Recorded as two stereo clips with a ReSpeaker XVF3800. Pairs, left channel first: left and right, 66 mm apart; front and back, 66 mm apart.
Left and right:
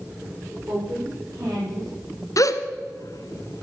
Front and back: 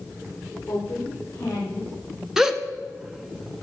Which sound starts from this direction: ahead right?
A woman speaking, at 0.7 s.